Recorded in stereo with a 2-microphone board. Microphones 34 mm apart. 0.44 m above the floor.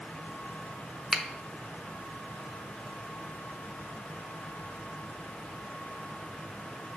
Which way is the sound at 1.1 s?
15° right (ahead or behind).